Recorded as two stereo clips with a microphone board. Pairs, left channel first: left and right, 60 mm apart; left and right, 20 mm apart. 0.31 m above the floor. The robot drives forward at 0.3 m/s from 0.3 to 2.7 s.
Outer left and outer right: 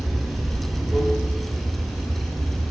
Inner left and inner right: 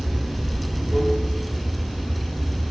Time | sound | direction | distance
0.0 | running water | centre (ahead or behind) | 0.8 m